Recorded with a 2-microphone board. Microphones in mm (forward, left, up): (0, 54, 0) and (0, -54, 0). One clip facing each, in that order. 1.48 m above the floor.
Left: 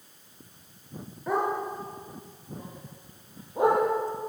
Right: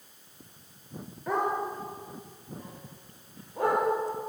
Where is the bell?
I don't hear a bell.